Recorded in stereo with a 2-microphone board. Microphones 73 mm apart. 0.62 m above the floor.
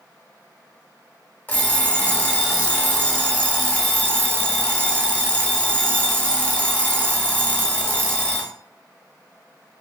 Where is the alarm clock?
25° left (ahead or behind), 1.0 m.